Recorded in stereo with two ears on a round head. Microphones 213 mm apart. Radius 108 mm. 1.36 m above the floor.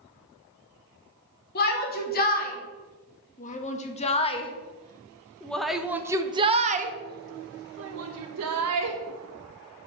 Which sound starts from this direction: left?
A shout, at 1.6 s.